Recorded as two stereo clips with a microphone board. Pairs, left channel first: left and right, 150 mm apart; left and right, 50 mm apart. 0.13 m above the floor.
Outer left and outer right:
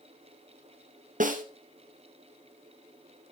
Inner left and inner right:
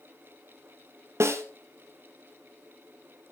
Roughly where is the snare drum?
Right.